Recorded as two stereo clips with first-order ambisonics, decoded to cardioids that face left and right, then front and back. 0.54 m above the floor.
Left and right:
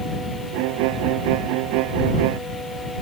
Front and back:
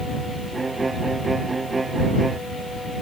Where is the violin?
100° right.